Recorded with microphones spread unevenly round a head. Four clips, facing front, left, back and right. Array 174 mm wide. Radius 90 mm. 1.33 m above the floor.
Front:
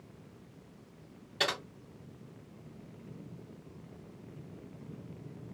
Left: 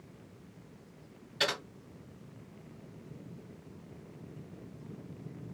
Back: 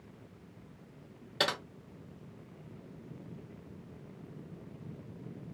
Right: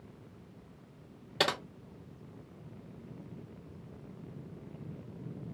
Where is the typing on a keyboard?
110° right, 0.7 m.